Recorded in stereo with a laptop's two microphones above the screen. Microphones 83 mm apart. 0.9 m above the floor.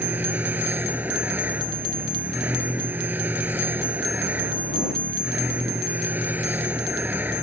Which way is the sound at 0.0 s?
20° right (ahead or behind).